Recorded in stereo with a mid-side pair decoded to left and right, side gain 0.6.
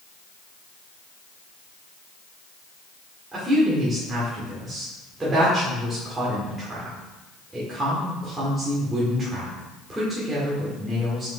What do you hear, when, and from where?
3.3 s a woman speaking: 20° right, 2.5 m